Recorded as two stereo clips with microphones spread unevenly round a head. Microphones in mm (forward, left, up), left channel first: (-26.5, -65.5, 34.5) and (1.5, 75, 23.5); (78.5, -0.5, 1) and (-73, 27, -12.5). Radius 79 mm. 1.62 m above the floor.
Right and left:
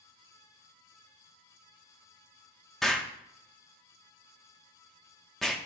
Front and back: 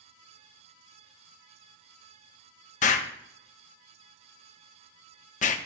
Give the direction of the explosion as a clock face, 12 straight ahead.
1 o'clock.